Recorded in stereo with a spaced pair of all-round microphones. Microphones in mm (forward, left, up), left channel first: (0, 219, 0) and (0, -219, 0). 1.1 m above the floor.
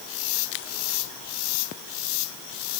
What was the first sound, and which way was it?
Only background noise.